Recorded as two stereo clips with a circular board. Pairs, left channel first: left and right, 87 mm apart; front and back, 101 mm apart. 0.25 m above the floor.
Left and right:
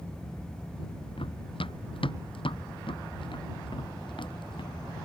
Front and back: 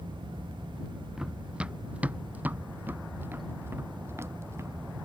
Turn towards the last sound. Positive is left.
turn(degrees=115)